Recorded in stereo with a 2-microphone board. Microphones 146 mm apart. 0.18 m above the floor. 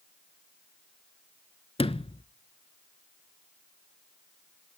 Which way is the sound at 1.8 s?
40° left (ahead or behind).